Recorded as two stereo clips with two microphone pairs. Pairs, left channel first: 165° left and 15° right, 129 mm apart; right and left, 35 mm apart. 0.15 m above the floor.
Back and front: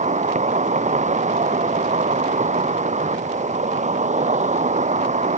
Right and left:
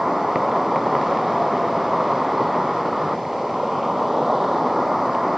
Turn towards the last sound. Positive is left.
turn(degrees=5)